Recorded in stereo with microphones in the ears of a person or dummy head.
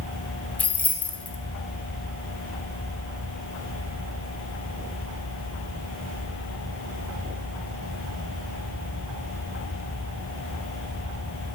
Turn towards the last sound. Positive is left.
turn(degrees=5)  # may be behind; listen again after turning